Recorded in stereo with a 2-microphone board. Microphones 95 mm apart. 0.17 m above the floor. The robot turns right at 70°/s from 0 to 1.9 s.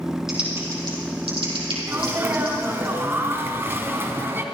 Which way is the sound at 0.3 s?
5° right (ahead or behind).